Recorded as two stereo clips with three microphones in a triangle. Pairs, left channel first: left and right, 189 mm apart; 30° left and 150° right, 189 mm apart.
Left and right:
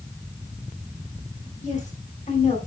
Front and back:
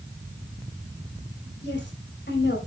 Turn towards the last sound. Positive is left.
turn(degrees=45)